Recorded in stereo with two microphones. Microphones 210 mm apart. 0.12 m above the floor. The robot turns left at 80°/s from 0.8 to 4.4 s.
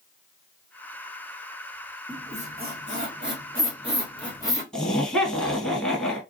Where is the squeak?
10° right (ahead or behind), 2.5 m; by 4.6 s 15° left (ahead or behind), 2.5 m.